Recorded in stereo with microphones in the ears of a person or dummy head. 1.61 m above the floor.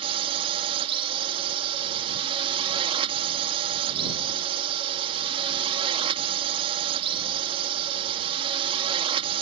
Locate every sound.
0.0 s a drone: 30° right (ahead or behind)